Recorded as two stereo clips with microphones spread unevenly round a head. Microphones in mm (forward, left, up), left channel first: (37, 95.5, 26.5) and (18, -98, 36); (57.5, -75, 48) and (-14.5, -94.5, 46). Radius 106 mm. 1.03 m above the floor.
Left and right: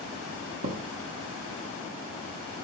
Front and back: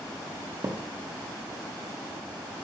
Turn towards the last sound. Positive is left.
turn(degrees=-115)